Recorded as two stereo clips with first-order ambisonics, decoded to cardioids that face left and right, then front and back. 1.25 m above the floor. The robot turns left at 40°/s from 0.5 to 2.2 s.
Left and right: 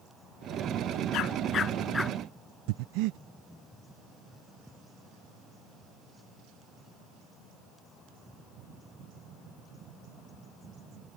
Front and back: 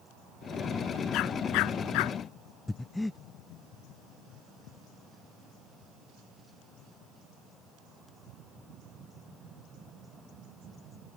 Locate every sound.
1.1 s a dog barking: 45° left; by 2.2 s straight ahead
2.7 s breathing: 85° right